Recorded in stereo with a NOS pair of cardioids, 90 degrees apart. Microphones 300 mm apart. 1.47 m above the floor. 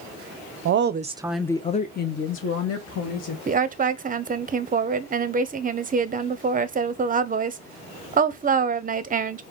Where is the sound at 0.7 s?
45° right, 0.6 m; by 3.4 s 55° left, 1.4 m.